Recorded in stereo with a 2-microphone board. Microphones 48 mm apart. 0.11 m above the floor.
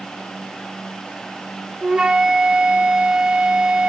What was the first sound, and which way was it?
A flute, 15° right (ahead or behind).